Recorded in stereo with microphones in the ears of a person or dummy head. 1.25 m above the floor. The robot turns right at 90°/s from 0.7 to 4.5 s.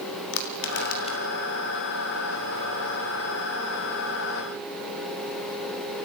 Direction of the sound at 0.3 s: 60° left (ahead or behind).